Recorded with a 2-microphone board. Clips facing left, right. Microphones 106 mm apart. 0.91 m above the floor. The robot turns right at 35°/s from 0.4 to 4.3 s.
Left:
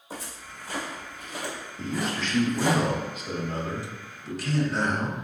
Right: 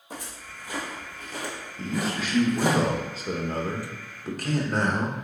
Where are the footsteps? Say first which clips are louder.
Even; 5° left (ahead or behind), 1.5 m; by 2.8 s 60° right (ahead or behind), 2.5 m.